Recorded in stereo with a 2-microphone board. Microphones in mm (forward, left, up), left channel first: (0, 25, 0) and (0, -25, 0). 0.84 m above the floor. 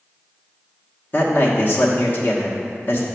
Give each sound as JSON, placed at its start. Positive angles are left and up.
{"t": 1.1, "sound": "a man speaking", "side_deg": 40, "distance_m": 1.1}